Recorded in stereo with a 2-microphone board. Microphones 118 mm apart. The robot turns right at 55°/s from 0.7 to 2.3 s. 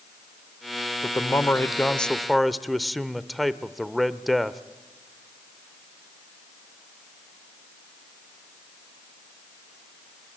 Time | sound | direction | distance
1.0 | a man speaking | 25° left (ahead or behind) | 0.8 m